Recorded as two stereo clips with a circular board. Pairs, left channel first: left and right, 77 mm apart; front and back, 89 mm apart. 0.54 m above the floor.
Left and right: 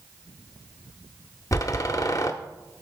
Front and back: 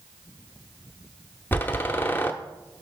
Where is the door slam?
60° left, 0.8 m.